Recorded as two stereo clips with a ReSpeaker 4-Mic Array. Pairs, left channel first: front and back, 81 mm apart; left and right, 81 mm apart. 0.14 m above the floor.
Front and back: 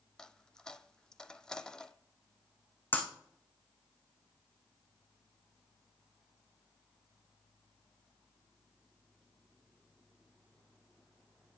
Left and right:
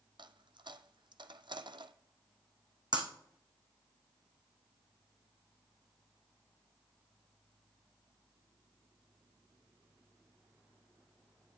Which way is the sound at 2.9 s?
70° right.